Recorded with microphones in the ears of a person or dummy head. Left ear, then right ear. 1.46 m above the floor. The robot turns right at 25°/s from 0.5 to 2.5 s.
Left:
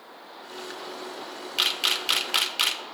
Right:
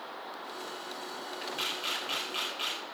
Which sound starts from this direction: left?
A camera shutter, at 1.6 s.